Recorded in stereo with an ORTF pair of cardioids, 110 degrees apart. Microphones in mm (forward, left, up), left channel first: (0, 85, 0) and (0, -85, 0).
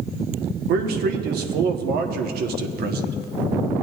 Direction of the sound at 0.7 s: 70° right.